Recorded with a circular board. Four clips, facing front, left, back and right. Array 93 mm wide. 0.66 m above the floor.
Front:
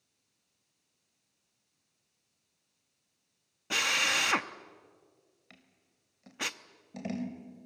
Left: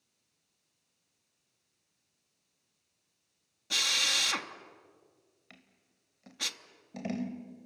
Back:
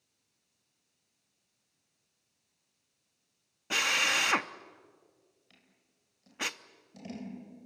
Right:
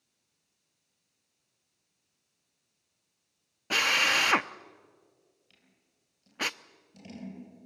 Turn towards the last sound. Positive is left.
turn(degrees=55)